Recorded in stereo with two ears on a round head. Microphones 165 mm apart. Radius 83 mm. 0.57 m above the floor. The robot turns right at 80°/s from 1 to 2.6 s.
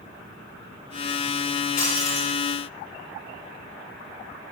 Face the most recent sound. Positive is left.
turn(degrees=-155)